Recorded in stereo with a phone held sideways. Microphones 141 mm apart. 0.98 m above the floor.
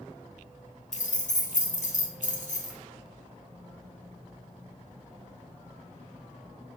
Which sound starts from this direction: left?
Keys jangling, at 0.9 s.